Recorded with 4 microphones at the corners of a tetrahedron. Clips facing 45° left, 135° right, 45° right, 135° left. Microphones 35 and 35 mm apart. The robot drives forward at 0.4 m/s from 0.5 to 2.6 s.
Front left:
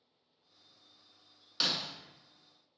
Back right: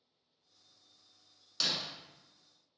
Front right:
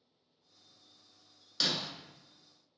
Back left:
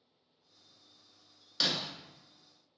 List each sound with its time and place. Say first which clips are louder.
1.6 s breaking glass: front left 1 dB, back left 1 dB; 75° left, 0.6 m; by 1.9 s 105° left, 0.6 m